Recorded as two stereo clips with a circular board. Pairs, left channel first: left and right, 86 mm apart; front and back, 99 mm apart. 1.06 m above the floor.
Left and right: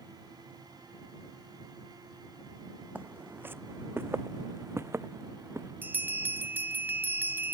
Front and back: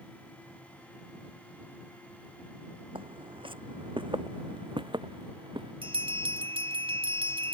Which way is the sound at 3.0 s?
155° right.